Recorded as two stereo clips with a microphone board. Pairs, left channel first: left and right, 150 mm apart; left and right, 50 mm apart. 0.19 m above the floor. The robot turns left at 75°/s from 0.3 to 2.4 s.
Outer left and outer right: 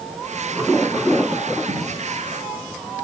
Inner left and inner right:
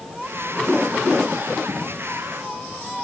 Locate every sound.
1.7 s a dropped coin: 60° right (ahead or behind), 5.5 m; by 2.1 s 85° right, 5.5 m